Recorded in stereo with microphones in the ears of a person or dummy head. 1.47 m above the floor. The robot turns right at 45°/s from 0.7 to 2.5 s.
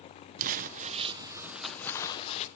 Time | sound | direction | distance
0.4 | crumpling | 45° right | 1.2 m